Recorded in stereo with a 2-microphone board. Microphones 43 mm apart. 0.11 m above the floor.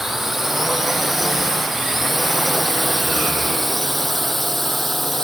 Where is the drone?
10° right (ahead or behind); by 5.2 s 10° left (ahead or behind).